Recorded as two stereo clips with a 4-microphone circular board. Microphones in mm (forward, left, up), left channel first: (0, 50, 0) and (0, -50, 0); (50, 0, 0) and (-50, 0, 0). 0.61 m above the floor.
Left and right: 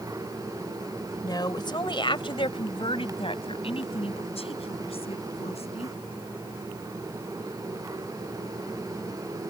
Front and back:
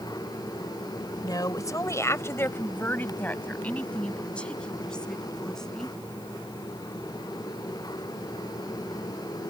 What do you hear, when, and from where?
1.2 s a woman speaking: 45° left; by 6.0 s 85° left